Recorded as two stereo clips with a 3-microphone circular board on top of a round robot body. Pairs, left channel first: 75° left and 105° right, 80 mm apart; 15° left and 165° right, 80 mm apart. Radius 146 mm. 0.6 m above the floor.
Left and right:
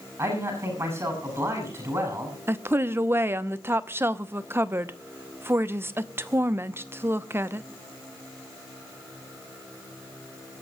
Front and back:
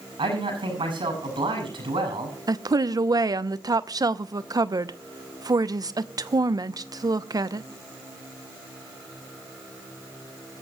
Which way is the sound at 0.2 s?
160° right.